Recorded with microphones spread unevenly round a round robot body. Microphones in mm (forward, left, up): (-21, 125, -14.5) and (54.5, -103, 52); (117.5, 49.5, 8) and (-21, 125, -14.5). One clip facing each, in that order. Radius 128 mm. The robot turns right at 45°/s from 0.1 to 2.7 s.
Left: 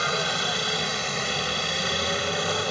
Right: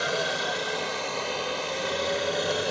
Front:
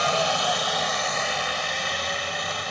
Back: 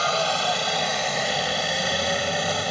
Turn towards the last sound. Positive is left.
turn(degrees=175)